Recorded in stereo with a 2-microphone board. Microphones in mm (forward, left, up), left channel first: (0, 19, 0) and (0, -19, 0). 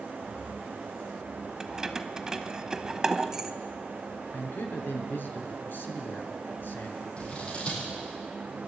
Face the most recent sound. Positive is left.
turn(degrees=30)  # may be behind; listen again after turning